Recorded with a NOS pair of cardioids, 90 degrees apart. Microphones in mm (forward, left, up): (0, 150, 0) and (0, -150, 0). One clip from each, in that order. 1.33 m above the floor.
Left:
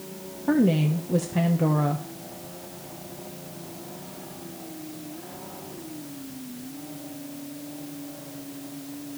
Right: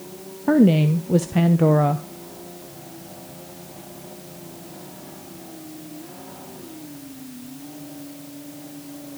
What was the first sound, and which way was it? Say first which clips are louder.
A woman speaking: right 5 dB; 30° right.